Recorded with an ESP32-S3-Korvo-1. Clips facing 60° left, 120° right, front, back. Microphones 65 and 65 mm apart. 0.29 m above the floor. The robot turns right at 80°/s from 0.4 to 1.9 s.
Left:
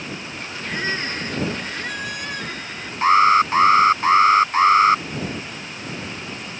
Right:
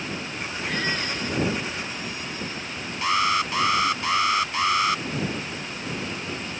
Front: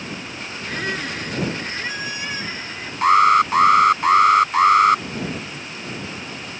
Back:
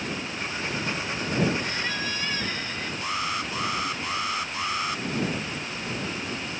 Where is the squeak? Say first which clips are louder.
Left 2 dB, front 6 dB; 25° right; by 2.9 s 75° left.